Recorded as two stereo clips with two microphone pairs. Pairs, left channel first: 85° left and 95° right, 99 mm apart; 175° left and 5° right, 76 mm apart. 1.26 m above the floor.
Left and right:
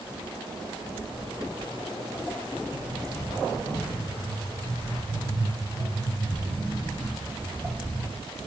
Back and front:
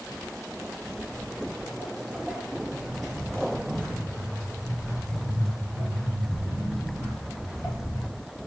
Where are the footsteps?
20° left, 1.5 m; by 8.0 s 130° right, 4.5 m.